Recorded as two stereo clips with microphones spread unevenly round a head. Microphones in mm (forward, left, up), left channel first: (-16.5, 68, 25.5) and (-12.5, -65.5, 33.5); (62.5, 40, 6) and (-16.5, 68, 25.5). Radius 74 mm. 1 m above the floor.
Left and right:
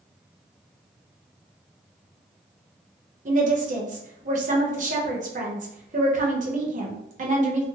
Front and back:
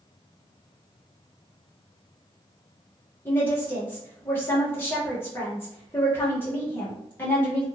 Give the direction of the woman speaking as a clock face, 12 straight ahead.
2 o'clock.